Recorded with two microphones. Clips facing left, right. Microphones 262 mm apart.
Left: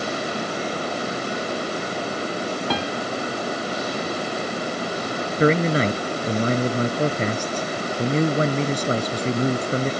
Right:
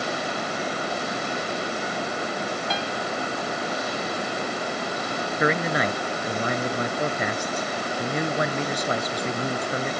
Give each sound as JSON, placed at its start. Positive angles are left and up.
{"t": 2.7, "sound": "a piano", "side_deg": 60}
{"t": 5.4, "sound": "a man speaking", "side_deg": 35}